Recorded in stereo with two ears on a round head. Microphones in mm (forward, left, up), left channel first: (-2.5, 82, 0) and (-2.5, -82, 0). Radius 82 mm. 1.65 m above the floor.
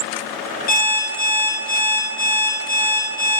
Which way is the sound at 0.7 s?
55° left (ahead or behind).